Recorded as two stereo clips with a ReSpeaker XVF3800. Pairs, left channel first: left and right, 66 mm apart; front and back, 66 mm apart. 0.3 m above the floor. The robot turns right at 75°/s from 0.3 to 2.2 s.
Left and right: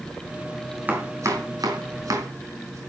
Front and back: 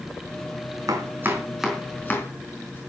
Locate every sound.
0.9 s chopping: 150° right, 4.5 m; by 2.8 s 55° right, 4.5 m